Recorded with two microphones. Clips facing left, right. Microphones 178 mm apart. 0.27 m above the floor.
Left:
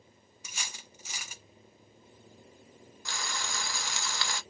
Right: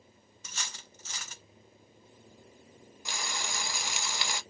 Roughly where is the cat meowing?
No cat meowing in this recording.